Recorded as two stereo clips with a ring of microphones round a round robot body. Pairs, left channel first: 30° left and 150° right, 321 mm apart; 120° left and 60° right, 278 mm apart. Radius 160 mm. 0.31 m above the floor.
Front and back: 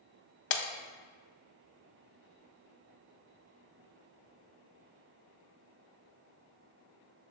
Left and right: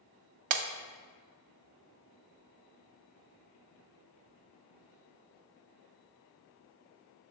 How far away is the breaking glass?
About 0.6 m.